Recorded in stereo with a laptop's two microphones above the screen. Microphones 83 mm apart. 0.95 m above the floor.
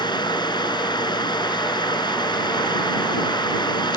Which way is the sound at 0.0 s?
60° left (ahead or behind).